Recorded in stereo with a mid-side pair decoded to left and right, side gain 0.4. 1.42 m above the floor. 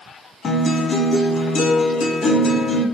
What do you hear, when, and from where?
0.4 s a guitar: 55° left, 0.6 m